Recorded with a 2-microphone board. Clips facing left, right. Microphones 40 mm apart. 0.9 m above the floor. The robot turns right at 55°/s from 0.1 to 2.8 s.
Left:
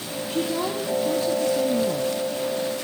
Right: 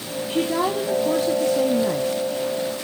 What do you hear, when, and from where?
0.3 s a woman speaking: 135° right, 1.7 m; by 2.1 s 35° right, 1.7 m